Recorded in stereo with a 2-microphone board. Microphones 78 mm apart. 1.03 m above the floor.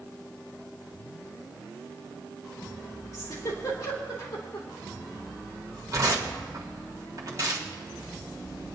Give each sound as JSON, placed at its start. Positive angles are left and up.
{"t": 3.1, "sound": "a giggle", "side_deg": 40, "distance_m": 3.0}
{"t": 5.9, "sound": "tearing paper", "side_deg": -45, "distance_m": 1.9}